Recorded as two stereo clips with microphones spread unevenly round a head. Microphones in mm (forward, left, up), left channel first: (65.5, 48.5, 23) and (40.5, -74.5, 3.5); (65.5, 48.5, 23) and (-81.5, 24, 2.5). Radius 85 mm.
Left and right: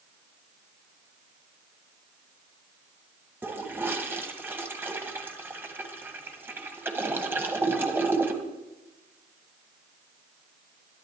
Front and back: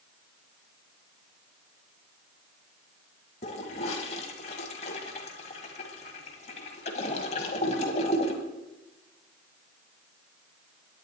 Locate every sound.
3.4 s a toilet flushing: 25° right, 1.6 m